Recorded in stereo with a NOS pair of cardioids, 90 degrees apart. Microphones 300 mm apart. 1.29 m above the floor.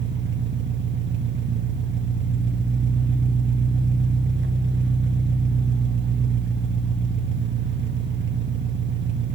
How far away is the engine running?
About 1.4 m.